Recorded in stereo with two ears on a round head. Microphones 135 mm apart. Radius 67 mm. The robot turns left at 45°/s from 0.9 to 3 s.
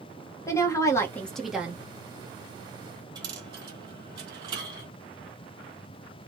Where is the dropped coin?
30° right (ahead or behind), 1.6 m.